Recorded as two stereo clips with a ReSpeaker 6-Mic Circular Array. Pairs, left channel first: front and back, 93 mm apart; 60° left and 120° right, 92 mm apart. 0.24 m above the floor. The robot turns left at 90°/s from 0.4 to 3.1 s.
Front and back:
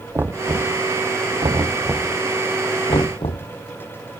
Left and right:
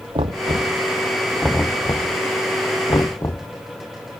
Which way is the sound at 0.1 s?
115° right.